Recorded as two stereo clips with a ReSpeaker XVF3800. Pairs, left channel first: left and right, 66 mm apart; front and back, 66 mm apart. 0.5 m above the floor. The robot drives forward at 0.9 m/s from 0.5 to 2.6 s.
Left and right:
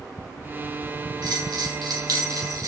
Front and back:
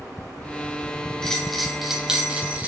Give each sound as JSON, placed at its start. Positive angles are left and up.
{"t": 1.2, "sound": "a bell", "azimuth_deg": -80, "distance_m": 2.5}